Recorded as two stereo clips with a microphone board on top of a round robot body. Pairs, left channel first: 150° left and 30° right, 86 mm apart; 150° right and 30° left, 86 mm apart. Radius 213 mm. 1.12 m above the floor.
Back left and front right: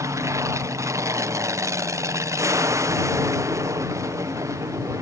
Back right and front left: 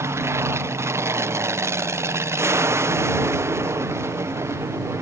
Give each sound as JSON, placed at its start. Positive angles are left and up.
{"t": 0.0, "sound": "an aircraft", "azimuth_deg": -5}